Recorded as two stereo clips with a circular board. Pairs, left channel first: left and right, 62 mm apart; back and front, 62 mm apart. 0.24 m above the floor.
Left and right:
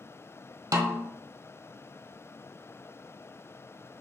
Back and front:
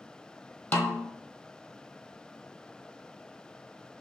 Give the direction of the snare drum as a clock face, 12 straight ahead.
4 o'clock.